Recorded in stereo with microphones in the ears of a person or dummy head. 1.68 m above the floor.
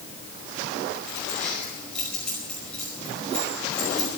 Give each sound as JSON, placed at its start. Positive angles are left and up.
{"t": 1.1, "sound": "keys jangling", "side_deg": 0, "distance_m": 5.0}